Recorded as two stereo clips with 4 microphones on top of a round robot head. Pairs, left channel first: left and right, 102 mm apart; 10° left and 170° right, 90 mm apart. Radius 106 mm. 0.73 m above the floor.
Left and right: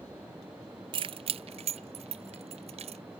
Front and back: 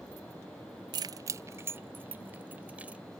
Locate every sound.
0.9 s keys jangling: 130° right; by 3.0 s 90° right